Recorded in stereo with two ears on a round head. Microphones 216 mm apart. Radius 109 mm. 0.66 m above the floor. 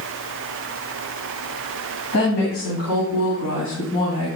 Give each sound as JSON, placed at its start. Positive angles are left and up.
{"t": 2.1, "sound": "a woman speaking", "side_deg": 50, "distance_m": 4.0}